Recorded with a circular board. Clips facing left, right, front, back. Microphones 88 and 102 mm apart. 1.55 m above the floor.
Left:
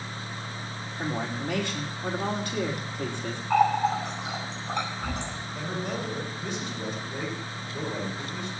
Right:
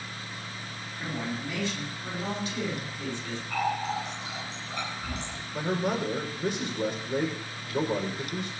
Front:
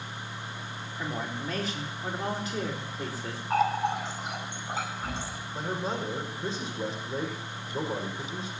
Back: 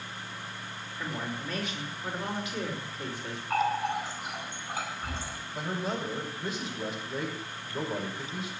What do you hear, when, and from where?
1.0 s a woman speaking: 55° left, 4.5 m
3.5 s a running tap: 60° left, 7.5 m
5.5 s a man speaking: 60° right, 5 m